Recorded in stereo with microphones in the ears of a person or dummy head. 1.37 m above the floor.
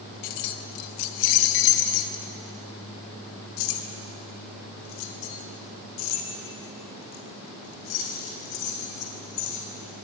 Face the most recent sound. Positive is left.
turn(degrees=65)  # may be behind; listen again after turning